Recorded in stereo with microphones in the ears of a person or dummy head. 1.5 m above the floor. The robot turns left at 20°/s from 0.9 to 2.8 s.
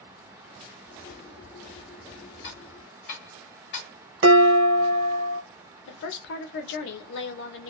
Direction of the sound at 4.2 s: 55° right (ahead or behind).